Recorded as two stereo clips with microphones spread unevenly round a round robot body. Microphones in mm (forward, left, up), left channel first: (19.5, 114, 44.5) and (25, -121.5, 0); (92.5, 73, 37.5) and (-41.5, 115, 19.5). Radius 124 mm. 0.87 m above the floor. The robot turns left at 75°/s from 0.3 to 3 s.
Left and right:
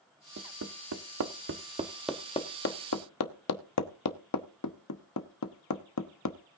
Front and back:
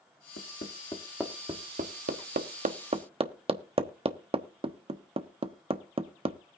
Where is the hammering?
45° right, 1.1 m; by 6.4 s 115° left, 1.1 m.